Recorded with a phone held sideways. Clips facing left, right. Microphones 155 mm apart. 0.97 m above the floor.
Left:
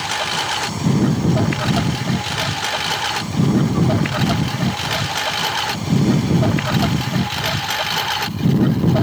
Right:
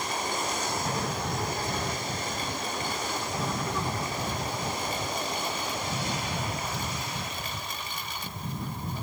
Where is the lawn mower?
85° left; by 9.0 s 80° left.